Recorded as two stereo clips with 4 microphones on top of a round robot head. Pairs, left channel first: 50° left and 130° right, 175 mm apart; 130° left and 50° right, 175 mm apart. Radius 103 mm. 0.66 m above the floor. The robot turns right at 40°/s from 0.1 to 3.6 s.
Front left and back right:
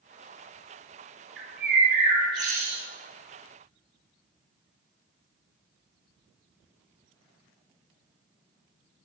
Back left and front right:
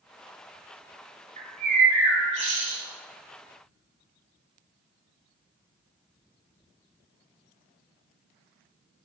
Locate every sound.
1.4 s a bird: 105° right, 2.5 m; by 2.8 s 45° right, 2.5 m